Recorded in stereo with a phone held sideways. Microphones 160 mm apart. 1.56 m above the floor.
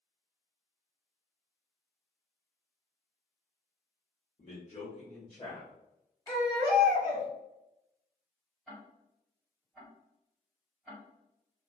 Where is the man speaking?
50° left (ahead or behind), 0.8 m; by 5.7 s 15° left (ahead or behind), 1.4 m.